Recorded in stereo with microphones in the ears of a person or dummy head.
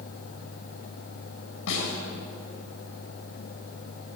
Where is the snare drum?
70° left (ahead or behind), 6.5 m.